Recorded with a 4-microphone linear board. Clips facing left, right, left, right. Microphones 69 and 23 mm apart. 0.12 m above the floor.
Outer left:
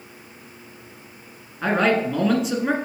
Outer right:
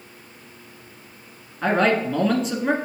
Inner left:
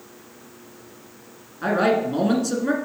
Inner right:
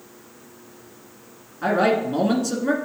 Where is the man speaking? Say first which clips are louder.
Even, even; 5° left (ahead or behind), 1.3 m.